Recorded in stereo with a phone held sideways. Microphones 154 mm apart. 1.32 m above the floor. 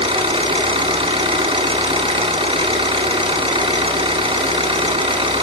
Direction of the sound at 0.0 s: 35° right (ahead or behind).